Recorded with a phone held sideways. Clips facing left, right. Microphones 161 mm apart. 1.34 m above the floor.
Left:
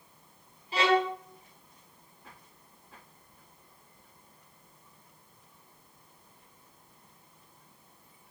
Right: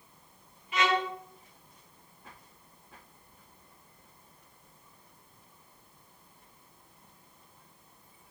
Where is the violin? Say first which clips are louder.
Left 3 dB; 35° left (ahead or behind), 0.7 m.